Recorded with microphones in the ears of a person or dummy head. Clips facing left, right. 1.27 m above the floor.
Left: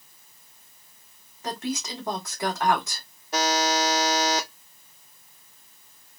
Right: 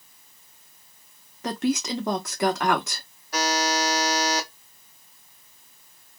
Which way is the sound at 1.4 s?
55° right (ahead or behind).